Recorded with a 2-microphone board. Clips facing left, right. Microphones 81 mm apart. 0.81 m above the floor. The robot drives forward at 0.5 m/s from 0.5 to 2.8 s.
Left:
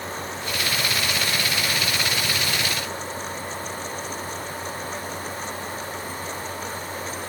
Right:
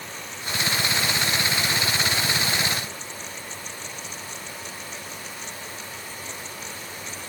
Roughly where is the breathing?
No breathing in this recording.